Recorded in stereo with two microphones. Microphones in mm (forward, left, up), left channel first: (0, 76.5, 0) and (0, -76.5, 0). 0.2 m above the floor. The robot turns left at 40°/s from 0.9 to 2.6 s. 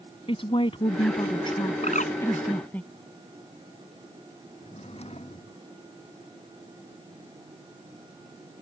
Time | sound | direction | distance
0.3 | a woman speaking | 85° left | ?
1.8 | a bird | 50° left (ahead or behind) | ?
4.6 | a drawer | 45° left (ahead or behind) | ?